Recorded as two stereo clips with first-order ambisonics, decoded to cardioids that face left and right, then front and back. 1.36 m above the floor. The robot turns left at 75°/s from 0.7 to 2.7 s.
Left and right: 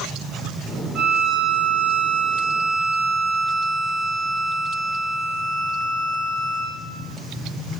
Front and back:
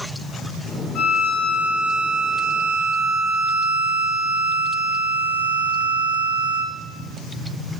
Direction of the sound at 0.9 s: 25° right.